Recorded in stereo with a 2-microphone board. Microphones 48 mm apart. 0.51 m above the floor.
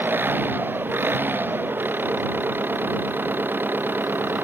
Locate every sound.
0.0 s an engine running: 45° right (ahead or behind)